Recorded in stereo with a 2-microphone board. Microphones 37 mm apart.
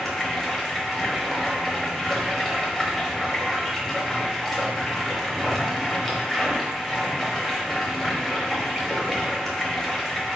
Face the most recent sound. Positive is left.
turn(degrees=10)  # may be behind; listen again after turning